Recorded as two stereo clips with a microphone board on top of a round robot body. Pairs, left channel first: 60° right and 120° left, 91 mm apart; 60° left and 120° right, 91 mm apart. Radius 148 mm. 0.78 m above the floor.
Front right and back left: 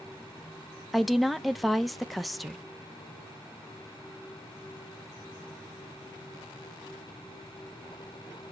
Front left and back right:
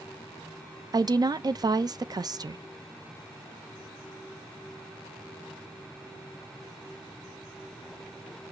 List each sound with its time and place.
0.9 s a woman speaking: 150° right, 0.6 m